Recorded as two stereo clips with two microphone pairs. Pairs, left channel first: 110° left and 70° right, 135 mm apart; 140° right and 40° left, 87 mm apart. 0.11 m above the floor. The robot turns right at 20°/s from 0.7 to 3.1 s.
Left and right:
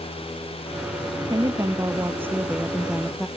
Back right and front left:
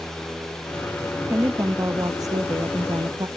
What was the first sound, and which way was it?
A woman speaking, 15° right.